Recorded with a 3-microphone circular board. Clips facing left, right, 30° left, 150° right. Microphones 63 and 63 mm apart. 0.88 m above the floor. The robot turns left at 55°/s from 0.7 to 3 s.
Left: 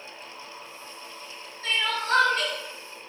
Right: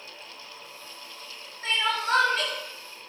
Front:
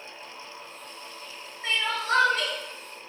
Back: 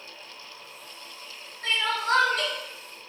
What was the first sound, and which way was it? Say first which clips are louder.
Crying: right 1 dB, back 1 dB; 140° right.